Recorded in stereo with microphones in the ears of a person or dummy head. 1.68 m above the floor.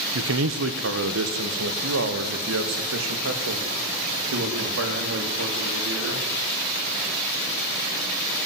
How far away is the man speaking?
About 1.4 m.